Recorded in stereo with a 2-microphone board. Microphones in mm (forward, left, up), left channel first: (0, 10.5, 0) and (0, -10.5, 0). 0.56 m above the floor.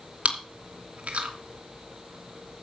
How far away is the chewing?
About 2.5 m.